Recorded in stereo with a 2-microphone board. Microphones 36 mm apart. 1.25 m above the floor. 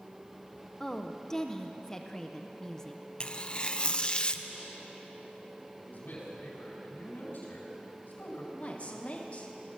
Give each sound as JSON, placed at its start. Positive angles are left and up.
{"t": 0.8, "sound": "a woman speaking", "side_deg": 15, "distance_m": 0.7}
{"t": 3.2, "sound": "tearing paper", "side_deg": 30, "distance_m": 0.5}
{"t": 5.8, "sound": "a man speaking", "side_deg": 80, "distance_m": 4.5}
{"t": 8.5, "sound": "a woman speaking", "side_deg": 40, "distance_m": 1.4}